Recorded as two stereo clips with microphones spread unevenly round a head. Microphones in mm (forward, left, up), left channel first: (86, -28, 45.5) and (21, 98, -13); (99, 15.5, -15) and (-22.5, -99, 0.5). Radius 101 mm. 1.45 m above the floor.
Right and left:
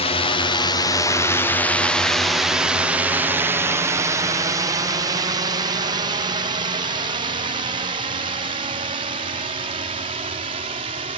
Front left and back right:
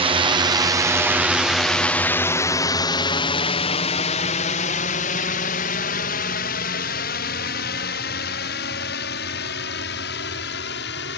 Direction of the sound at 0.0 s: 120° right.